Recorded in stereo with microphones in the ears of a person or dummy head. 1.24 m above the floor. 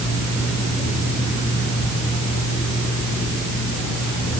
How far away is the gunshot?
No gunshot in this recording.